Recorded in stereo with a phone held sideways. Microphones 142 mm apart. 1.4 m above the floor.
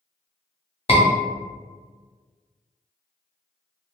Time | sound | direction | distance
0.9 | a scream | 40° left (ahead or behind) | 0.9 m